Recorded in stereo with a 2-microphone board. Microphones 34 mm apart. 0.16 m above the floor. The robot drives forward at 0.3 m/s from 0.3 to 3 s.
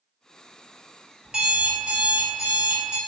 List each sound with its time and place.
1.2 s an alarm clock: 25° right (ahead or behind), 1.4 m; by 3.0 s 20° right (ahead or behind), 1.9 m